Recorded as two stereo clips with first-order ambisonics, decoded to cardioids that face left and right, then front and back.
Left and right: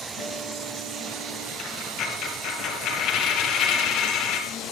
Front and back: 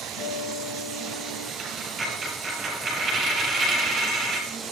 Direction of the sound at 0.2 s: 50° right.